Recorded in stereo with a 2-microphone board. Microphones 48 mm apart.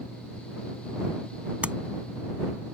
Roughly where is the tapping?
Right.